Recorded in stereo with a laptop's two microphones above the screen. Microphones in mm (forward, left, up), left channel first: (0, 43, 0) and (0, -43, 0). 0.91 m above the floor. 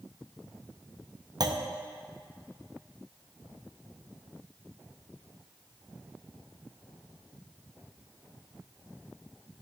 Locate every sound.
1.4 s a clunk: 50° right (ahead or behind), 0.6 m